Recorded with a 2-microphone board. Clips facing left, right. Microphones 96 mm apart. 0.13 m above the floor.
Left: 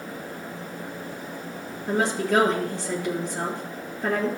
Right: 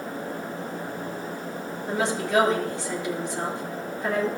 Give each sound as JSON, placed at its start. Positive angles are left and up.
{"t": 1.9, "sound": "a woman speaking", "side_deg": 50, "distance_m": 3.0}